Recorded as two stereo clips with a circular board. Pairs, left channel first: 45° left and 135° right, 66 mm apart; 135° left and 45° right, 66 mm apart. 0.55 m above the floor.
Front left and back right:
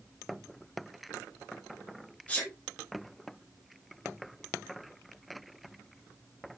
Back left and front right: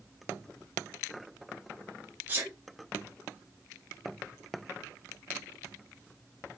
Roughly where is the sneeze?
Ahead.